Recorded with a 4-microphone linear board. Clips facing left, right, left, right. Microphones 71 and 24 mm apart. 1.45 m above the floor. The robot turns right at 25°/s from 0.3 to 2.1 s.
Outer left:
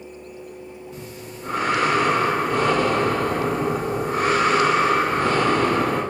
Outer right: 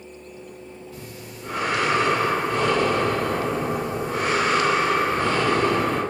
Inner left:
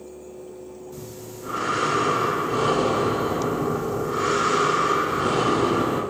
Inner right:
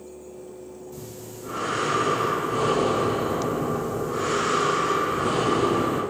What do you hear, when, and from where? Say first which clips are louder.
0.9 s breathing: outer left 2 dB, inner left 1 dB; 20° left (ahead or behind), 1.3 m; by 6.0 s 50° left (ahead or behind), 1.3 m